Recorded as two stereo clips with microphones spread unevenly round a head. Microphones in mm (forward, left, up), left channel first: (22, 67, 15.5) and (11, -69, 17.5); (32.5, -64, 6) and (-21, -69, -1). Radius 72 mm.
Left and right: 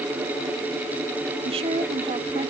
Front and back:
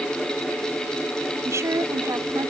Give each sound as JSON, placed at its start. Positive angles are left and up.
{"t": 1.4, "sound": "a woman speaking", "azimuth_deg": -145}